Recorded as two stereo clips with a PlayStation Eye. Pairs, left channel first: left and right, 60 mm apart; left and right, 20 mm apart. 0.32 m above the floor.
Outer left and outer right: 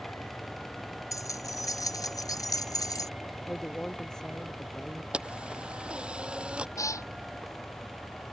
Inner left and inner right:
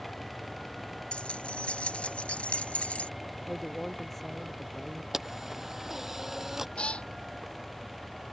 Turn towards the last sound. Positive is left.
turn(degrees=60)  # may be behind; listen again after turning